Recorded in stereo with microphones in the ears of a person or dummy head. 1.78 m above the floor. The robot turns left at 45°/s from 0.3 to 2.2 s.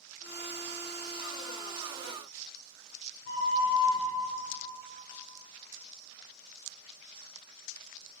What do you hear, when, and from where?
3.2 s a flute: 70° left (ahead or behind), 0.6 m